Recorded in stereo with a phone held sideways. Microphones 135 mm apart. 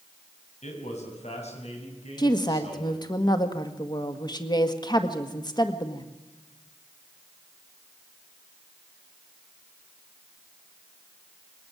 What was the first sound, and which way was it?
A man speaking, 60° left (ahead or behind).